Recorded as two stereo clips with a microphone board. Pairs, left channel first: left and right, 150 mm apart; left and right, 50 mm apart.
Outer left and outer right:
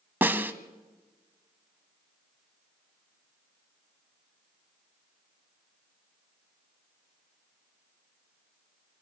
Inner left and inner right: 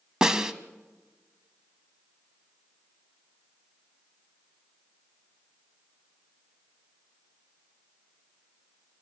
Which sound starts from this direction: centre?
A snare drum, at 0.2 s.